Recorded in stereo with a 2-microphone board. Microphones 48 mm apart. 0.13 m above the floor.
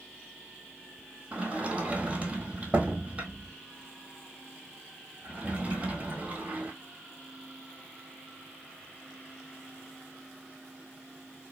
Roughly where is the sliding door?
Right.